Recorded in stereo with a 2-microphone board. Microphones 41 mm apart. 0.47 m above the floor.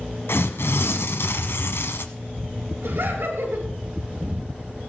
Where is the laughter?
75° right (ahead or behind), 7 m.